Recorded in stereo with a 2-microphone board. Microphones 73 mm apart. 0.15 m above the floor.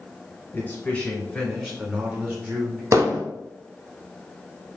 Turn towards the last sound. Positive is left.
turn(degrees=-40)  # may be behind; listen again after turning